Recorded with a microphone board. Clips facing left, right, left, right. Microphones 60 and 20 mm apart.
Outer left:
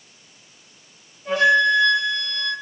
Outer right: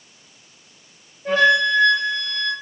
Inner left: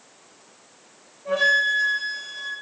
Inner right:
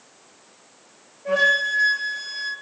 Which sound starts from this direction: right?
A flute, at 1.2 s.